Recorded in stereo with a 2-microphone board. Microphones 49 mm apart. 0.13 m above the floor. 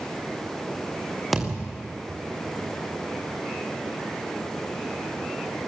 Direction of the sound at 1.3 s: Centre (ahead or behind).